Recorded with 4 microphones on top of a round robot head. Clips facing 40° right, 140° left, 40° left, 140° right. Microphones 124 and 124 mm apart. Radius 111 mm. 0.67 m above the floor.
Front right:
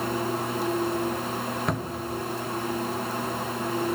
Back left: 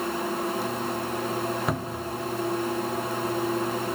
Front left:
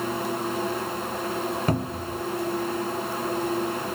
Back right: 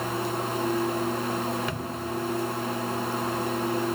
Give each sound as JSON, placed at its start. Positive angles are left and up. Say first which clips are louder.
{"t": 1.7, "sound": "a cupboard door", "louder": "even, front left 4 dB", "azimuth_deg": 55, "distance_m": 0.8}